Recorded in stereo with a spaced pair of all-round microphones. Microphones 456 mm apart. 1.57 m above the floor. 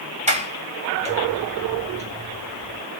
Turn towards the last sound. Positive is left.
turn(degrees=-15)  # may be behind; listen again after turning